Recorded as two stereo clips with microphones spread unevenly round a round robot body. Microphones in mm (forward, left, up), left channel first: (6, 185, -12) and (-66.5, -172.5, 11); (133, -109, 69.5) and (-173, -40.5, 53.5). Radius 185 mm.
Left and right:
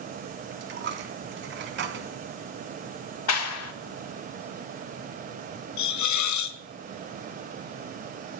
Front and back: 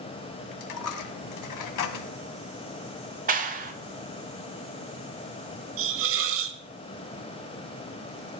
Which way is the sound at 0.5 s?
40° right.